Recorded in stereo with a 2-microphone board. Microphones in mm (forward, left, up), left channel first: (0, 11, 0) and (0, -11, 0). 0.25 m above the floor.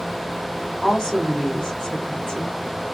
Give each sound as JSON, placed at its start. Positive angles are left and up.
{"t": 0.8, "sound": "a woman speaking", "side_deg": 40, "distance_m": 1.3}